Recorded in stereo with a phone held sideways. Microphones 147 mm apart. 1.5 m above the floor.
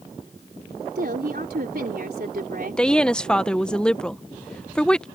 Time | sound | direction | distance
0.9 | a woman speaking | 85° right | ?
2.8 | a woman speaking | 5° left (ahead or behind) | ?